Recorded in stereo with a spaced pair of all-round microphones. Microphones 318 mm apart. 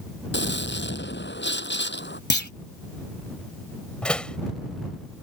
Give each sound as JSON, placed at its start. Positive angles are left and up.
{"t": 0.3, "sound": "a gunshot", "side_deg": 35}
{"t": 2.3, "sound": "a clunk", "side_deg": 35}
{"t": 4.0, "sound": "a door slam", "side_deg": 5}